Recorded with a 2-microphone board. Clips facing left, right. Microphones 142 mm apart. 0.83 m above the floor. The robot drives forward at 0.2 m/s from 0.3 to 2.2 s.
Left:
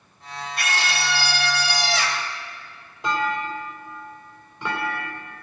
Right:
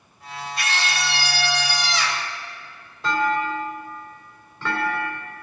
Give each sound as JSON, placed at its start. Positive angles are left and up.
{"t": 0.6, "sound": "a scream", "side_deg": 60, "distance_m": 1.9}
{"t": 3.0, "sound": "a clunk", "side_deg": 20, "distance_m": 1.9}